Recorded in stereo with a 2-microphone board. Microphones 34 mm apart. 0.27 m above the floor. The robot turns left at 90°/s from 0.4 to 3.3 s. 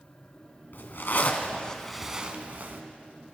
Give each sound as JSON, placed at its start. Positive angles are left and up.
{"t": 0.7, "sound": "a zipper", "azimuth_deg": 110, "distance_m": 1.1}